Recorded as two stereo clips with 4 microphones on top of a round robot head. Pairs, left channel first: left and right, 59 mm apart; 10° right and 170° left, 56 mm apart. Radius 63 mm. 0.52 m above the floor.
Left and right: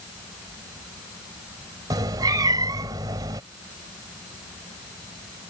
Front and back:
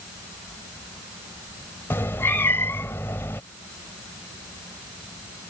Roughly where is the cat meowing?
Ahead right.